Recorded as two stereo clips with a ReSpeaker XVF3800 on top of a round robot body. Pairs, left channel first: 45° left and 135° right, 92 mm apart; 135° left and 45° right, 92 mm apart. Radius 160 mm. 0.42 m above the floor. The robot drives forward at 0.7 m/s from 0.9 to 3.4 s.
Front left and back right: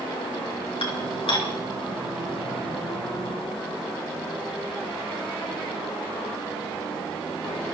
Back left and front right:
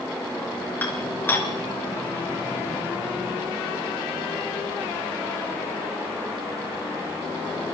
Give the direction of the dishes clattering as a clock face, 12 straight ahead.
10 o'clock.